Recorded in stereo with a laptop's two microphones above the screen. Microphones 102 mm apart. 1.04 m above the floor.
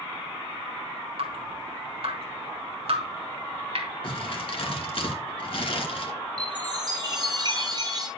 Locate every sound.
1.2 s dripping: 70° right (ahead or behind), 3.5 m
4.0 s crumpling: 60° left (ahead or behind), 2.5 m
6.4 s a chime: 45° right (ahead or behind), 5.5 m